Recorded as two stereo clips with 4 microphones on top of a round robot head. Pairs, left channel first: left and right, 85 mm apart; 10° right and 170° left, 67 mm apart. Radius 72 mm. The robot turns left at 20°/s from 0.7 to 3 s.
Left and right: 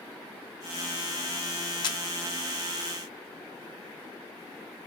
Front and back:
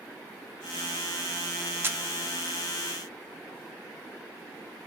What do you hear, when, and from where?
1.8 s a camera shutter: 115° left, 0.7 m; by 2.0 s 110° left, 0.7 m